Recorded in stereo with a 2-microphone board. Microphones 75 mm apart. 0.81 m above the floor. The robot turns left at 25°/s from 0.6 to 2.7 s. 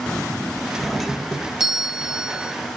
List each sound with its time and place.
0.8 s a doorbell: centre (ahead or behind), 0.8 m; by 2.5 s 15° right (ahead or behind), 0.8 m